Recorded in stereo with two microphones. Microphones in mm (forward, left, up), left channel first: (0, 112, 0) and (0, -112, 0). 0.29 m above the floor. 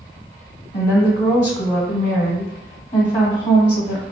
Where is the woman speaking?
30° left (ahead or behind), 1.1 m.